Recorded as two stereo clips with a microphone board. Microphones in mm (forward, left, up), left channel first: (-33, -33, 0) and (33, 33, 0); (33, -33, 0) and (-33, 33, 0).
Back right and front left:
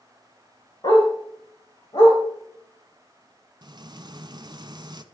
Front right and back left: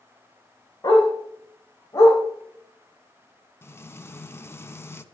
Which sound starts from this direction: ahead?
Frying, at 3.6 s.